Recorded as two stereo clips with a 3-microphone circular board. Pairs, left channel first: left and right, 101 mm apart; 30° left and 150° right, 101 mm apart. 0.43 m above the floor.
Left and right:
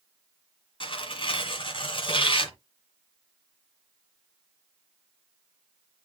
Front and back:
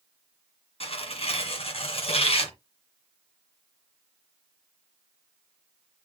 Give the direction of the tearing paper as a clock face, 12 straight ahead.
10 o'clock.